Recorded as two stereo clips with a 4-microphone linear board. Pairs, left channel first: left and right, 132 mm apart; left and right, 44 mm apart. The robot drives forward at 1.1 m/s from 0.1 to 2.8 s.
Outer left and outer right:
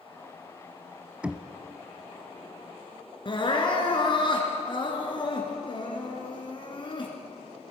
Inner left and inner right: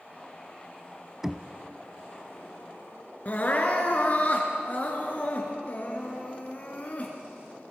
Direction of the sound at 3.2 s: 45° left (ahead or behind).